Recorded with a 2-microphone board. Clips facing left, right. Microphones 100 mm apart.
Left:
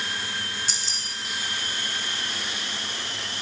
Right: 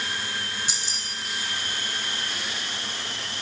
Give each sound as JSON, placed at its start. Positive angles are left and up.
{"t": 0.7, "sound": "keys jangling", "side_deg": -15, "distance_m": 3.0}